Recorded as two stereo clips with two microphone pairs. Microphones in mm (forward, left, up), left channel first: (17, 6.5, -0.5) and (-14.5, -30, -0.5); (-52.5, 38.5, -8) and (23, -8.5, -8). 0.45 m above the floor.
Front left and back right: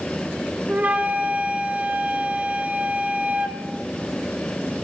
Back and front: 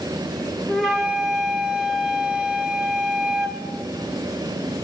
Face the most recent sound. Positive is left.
turn(degrees=-130)